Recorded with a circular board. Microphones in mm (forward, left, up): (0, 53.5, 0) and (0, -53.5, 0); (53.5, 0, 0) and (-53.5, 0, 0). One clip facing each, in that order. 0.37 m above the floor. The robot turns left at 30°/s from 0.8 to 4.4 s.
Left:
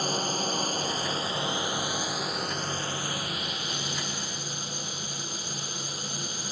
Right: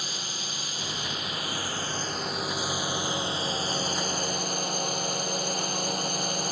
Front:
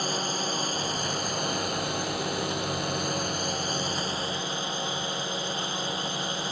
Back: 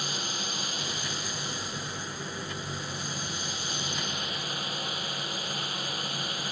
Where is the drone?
45° left; by 6.5 s 60° right.